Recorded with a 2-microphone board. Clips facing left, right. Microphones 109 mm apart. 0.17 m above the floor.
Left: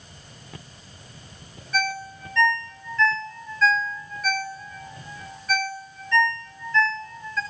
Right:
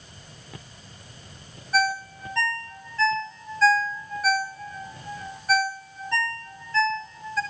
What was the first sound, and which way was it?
A ringtone, 35° right (ahead or behind).